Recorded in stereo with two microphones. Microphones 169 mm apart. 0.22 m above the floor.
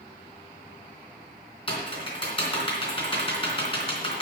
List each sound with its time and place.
1.7 s typing on a keyboard: 30° left (ahead or behind), 3 m